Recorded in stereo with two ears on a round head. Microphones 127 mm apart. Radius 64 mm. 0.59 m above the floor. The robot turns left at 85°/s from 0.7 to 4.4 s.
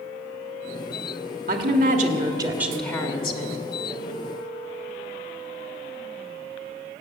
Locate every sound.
1.5 s a woman speaking: 70° right, 1.6 m; by 3.6 s 110° left, 1.6 m